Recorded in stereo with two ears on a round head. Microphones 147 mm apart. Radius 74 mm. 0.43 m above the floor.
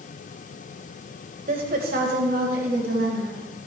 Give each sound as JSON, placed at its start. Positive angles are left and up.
{"t": 1.5, "sound": "a woman speaking", "side_deg": -50, "distance_m": 2.0}